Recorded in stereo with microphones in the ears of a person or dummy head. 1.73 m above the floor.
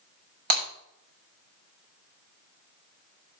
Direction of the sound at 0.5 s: 45° right (ahead or behind).